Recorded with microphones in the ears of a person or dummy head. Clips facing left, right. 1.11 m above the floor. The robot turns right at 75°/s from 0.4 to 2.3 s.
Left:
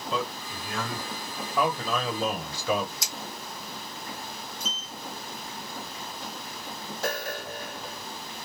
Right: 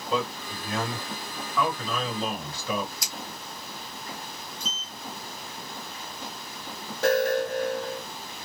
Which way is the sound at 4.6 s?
45° left (ahead or behind).